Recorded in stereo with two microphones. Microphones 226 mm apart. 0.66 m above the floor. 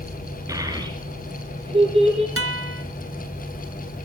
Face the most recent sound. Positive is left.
turn(degrees=-80)